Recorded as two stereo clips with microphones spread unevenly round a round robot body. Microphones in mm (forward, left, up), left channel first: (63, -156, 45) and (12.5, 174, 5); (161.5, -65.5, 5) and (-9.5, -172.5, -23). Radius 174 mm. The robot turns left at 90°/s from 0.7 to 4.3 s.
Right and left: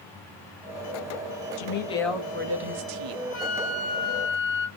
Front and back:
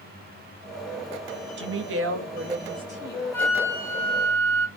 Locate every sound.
1.6 s a woman speaking: 130° right, 0.7 m; by 3.2 s 85° left, 0.7 m
3.3 s a flute: 40° right, 0.9 m; by 4.7 s 125° right, 0.9 m